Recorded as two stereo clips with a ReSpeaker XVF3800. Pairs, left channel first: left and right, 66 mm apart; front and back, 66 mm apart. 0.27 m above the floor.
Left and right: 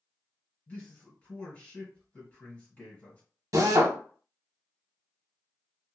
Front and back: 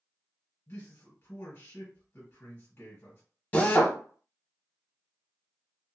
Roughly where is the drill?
Ahead right.